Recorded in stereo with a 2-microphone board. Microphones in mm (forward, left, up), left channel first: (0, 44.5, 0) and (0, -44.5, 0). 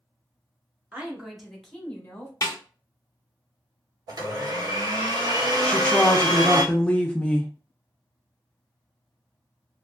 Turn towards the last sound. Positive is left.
turn(degrees=15)  # may be behind; listen again after turning